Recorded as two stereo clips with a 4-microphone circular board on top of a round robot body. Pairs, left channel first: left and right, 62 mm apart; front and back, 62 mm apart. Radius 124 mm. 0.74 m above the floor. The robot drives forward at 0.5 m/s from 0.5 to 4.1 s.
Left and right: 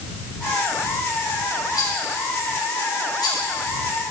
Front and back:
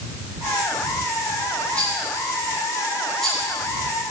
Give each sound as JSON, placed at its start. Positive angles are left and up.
{"t": 1.8, "sound": "a rattle", "azimuth_deg": 75, "distance_m": 4.0}